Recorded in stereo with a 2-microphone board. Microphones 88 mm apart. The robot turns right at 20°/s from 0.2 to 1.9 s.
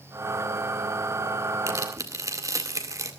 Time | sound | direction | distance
1.7 | tearing paper | 35° right (ahead or behind) | 1.9 m